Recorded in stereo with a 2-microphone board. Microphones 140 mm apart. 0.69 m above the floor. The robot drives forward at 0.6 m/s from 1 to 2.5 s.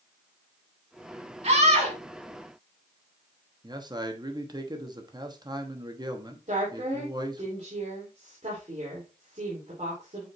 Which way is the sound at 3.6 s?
30° right (ahead or behind).